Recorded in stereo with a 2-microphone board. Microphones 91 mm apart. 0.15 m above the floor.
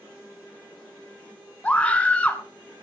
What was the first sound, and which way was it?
A scream, 15° left (ahead or behind).